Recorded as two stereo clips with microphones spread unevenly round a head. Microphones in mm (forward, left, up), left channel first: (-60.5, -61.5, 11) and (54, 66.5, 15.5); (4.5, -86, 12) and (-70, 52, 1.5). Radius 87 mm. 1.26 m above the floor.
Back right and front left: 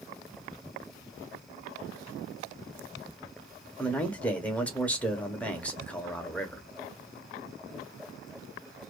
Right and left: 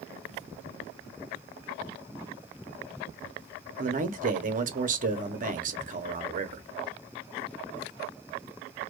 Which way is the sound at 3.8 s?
145° left.